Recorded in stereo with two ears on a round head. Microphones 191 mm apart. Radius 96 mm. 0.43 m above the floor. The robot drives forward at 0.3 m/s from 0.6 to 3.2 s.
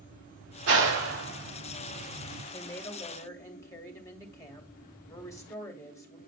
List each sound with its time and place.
0.7 s a clap: 65° right (ahead or behind), 6 m
2.5 s a woman speaking: 15° left (ahead or behind), 2 m